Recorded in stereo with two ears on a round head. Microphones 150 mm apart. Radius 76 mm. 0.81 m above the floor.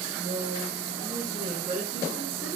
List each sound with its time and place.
0.2 s a woman speaking: 50° right (ahead or behind), 3 m; by 2.6 s 10° right (ahead or behind), 1.8 m